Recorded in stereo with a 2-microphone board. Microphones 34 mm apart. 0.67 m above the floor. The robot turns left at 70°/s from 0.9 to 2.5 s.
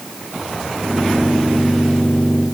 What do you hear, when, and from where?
Only background noise.